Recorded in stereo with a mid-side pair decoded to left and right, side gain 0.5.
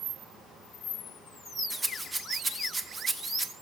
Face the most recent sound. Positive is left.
turn(degrees=-20)